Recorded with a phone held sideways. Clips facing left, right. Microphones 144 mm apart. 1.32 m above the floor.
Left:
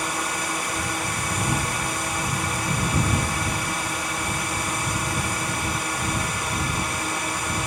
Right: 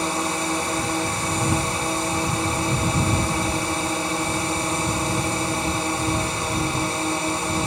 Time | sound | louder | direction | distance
0.0 | a drone | right 4 dB | 30° right (ahead or behind) | ?